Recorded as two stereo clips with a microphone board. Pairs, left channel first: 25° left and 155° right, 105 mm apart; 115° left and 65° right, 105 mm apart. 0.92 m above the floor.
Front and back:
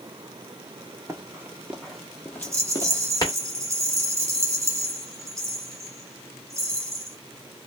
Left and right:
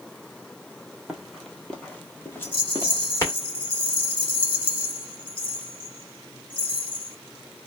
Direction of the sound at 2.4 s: 140° left.